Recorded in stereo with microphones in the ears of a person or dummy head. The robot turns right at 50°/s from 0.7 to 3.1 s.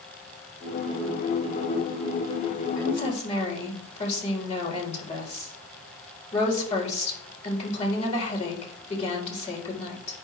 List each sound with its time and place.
2.8 s a woman speaking: 20° left (ahead or behind), 4 m; by 10.2 s 40° left (ahead or behind), 4 m